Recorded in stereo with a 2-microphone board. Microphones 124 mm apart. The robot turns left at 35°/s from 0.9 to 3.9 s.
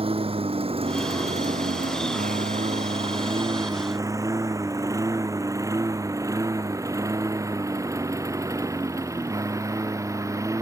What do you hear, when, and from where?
0.0 s a lawn mower: 50° right (ahead or behind); by 10.6 s 25° right (ahead or behind)